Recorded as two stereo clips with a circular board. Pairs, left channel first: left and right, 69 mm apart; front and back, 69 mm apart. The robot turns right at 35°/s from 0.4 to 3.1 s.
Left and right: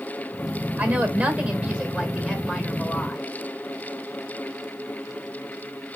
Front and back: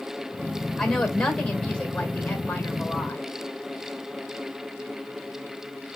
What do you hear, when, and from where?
0.8 s a woman speaking: 75° right, 1.5 m; by 3.2 s 5° left, 1.5 m